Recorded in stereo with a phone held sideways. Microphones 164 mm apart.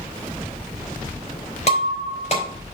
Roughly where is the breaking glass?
Left.